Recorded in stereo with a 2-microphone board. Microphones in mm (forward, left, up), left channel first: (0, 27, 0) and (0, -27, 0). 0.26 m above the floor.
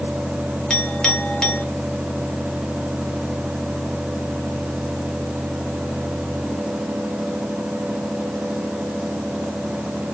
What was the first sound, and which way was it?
A clink, 15° left (ahead or behind).